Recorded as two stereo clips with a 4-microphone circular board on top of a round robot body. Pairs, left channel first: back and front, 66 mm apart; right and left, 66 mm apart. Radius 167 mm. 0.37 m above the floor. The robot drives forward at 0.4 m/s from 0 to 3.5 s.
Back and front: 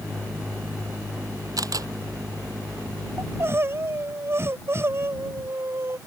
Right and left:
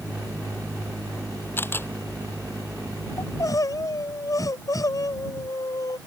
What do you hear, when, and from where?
1.6 s a camera shutter: 30° right
3.2 s crying: 50° right; by 6.0 s 55° right